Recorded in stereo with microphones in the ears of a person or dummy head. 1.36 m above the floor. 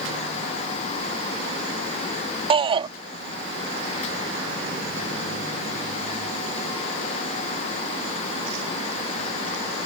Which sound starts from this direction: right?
A shout, at 2.5 s.